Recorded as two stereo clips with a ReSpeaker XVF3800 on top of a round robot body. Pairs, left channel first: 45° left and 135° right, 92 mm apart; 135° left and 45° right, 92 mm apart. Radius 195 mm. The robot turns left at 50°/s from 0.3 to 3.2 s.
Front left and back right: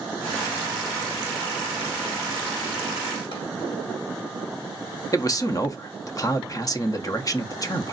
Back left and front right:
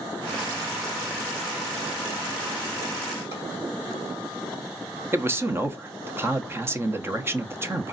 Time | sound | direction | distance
3.3 | a drawer | 15° left | 2.5 m
5.1 | a man speaking | 10° left | 1.0 m